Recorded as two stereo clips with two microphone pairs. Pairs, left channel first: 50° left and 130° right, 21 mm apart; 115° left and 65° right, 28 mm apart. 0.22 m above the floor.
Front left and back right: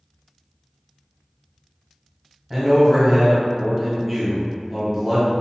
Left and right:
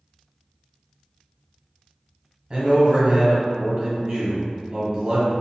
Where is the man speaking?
45° right, 1.1 m.